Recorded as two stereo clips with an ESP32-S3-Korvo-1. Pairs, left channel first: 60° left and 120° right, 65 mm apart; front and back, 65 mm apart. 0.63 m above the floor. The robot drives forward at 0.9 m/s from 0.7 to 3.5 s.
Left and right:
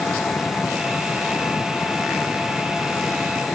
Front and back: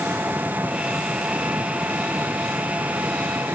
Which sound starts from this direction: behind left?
An engine running, at 0.0 s.